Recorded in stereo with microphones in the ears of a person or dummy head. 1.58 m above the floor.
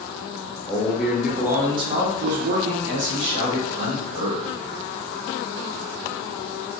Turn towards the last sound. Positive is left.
turn(degrees=-65)  # may be behind; listen again after turning